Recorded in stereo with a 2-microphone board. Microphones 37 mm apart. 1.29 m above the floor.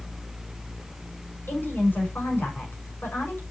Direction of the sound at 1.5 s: 65° left (ahead or behind).